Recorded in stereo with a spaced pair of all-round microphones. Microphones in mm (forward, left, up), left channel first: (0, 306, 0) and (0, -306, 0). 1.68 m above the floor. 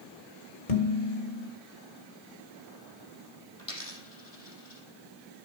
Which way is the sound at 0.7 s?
65° left (ahead or behind).